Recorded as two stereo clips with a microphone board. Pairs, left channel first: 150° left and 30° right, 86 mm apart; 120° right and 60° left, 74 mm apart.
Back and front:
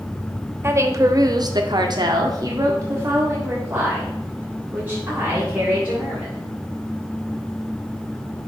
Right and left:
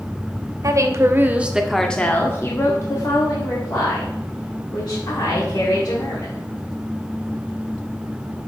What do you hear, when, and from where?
0.6 s a woman speaking: 25° left, 1.1 m; by 6.5 s 105° right, 4 m